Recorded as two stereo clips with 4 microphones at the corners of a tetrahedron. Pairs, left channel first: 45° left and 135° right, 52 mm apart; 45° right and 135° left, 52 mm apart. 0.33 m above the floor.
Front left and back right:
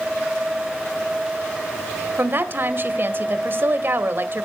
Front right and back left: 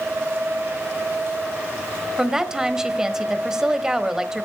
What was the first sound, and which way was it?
A woman speaking, 150° right.